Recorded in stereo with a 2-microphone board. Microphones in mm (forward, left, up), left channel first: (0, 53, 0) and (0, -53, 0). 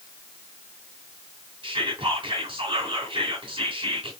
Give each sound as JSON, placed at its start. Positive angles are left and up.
{"t": 1.6, "sound": "whispering", "side_deg": -50, "distance_m": 2.5}